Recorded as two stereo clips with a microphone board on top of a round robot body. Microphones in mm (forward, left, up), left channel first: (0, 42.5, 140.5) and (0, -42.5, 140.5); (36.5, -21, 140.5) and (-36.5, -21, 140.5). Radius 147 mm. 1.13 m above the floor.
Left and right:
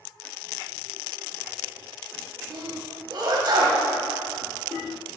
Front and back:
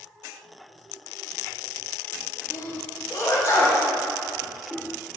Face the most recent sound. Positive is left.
turn(degrees=-50)